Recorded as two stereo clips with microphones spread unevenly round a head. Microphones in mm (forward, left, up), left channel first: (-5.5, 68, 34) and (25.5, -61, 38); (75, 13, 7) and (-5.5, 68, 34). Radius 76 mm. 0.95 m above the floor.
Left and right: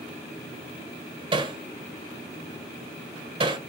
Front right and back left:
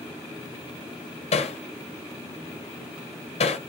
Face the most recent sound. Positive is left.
turn(degrees=-25)